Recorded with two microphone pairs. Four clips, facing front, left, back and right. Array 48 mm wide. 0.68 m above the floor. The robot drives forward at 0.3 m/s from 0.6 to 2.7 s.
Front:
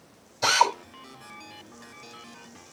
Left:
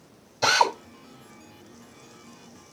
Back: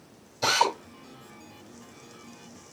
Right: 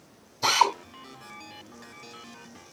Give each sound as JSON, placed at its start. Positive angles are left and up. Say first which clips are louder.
{"t": 0.4, "sound": "a drill", "louder": "left 1 dB, front 2 dB", "azimuth_deg": 90, "distance_m": 4.0}